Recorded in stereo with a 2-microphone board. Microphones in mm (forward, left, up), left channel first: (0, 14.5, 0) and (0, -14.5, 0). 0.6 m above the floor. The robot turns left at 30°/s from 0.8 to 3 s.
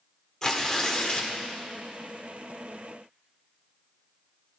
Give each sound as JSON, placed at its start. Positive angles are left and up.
{"t": 0.4, "sound": "tearing paper", "side_deg": 20, "distance_m": 1.5}